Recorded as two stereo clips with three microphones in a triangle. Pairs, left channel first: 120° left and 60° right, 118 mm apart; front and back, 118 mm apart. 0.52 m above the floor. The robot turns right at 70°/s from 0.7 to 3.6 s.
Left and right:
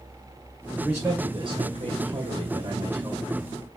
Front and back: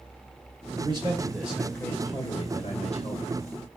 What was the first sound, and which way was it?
A man speaking, 150° right.